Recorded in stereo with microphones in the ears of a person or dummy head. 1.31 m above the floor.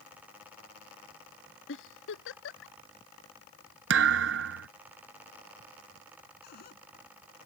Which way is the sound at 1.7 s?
80° left.